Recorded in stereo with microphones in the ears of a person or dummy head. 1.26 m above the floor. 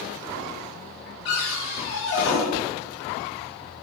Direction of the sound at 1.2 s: 75° left (ahead or behind).